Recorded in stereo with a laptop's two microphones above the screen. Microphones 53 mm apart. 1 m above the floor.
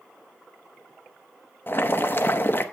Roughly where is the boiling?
Left.